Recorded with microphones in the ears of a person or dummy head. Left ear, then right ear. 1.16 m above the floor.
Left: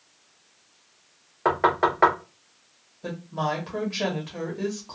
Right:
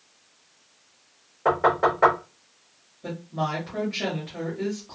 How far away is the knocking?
About 1.0 m.